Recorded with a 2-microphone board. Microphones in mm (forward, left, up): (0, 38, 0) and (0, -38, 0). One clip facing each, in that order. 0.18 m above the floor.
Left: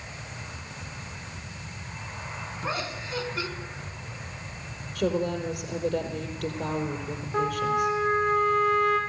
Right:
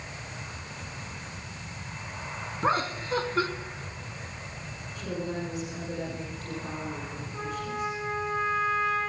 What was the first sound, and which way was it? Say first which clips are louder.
Laughter: right 6 dB; 45° right (ahead or behind).